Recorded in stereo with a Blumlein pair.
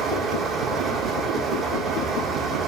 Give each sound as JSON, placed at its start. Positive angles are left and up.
{"t": 0.0, "sound": "a fan", "azimuth_deg": -20, "distance_m": 1.9}